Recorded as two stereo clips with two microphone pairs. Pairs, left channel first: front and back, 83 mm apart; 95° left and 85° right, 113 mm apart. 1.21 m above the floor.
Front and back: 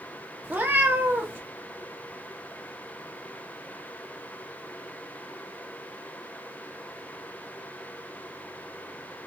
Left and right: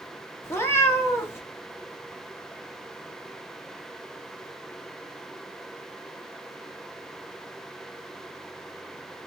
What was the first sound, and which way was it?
A cat meowing, 145° left.